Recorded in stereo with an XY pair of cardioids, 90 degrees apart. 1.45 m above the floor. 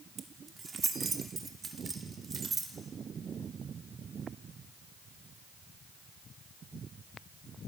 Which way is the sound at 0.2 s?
40° right.